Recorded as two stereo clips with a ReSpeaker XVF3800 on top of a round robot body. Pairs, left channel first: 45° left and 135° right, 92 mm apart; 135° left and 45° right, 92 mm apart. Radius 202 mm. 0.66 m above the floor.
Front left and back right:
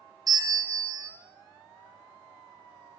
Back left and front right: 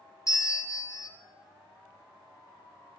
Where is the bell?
175° right, 2 m.